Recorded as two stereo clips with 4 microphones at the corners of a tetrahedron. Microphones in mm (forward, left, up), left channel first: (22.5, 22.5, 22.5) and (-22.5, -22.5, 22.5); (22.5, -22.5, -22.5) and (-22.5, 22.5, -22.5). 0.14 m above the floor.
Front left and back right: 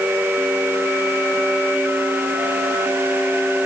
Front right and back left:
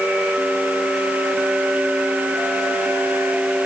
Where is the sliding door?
I don't hear a sliding door.